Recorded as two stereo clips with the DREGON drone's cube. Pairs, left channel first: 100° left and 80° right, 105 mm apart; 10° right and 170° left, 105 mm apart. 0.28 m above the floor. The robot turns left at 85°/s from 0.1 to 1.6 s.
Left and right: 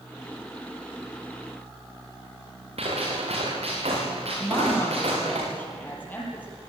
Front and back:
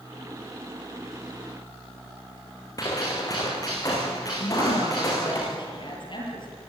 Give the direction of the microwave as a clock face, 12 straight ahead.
I don't hear a microwave.